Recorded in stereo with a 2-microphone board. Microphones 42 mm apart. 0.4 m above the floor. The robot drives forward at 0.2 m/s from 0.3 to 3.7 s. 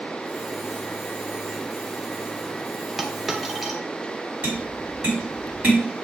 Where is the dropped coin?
10° right (ahead or behind), 0.5 m; by 3.8 s 5° right (ahead or behind), 0.7 m.